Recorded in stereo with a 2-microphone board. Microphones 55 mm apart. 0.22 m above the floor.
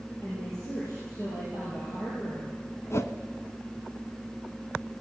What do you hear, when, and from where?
0.2 s a woman speaking: 80° left, 7.5 m
2.9 s a whoosh: 60° left (ahead or behind), 1.0 m